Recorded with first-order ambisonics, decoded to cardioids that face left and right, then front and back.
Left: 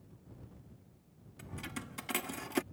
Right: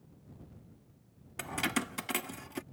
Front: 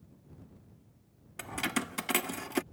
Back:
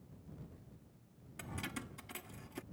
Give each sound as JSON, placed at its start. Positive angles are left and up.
{"t": 1.4, "sound": "keys jangling", "azimuth_deg": -60}